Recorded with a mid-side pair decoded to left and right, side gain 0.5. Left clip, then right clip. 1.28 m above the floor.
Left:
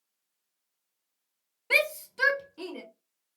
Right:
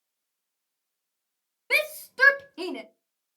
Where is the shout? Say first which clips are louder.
Even; 5° right, 0.6 m; by 2.8 s 55° right, 0.8 m.